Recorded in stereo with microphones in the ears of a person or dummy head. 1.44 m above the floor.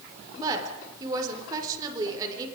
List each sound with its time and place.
0.4 s a woman speaking: 15° right (ahead or behind), 4.5 m